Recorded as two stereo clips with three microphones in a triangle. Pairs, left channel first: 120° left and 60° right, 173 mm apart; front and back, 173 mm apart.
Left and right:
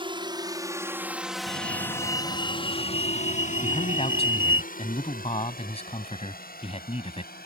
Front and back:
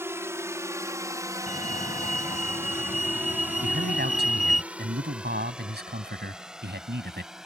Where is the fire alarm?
40° right.